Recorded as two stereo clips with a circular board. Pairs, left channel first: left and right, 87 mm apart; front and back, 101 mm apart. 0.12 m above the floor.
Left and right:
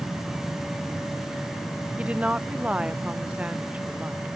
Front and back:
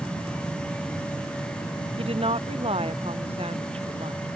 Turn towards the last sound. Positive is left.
turn(degrees=-165)